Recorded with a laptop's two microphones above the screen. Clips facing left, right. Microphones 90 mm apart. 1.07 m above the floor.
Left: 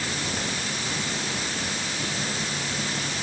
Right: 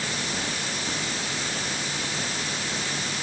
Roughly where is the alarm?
I don't hear an alarm.